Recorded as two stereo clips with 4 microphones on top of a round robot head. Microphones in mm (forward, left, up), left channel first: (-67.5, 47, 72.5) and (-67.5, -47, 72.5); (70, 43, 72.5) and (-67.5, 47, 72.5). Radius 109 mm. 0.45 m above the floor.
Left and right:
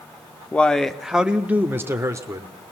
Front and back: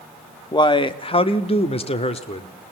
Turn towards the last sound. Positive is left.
turn(degrees=-40)